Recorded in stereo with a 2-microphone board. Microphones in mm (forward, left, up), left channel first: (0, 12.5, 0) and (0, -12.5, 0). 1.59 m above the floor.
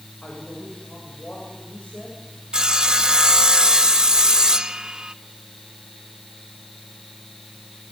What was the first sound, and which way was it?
A woman speaking, 60° left (ahead or behind).